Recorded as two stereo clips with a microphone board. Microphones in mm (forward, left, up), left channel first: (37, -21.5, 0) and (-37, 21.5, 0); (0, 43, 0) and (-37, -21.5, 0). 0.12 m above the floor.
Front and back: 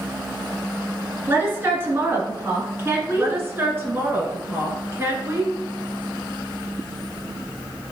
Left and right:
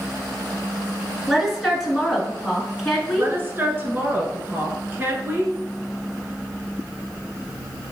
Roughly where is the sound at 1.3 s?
Behind left.